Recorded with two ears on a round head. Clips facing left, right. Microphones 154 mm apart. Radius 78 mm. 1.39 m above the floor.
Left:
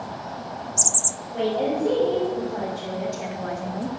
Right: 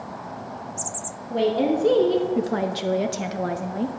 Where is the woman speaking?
50° right (ahead or behind), 2.0 m; by 3.9 s 30° right (ahead or behind), 1.4 m.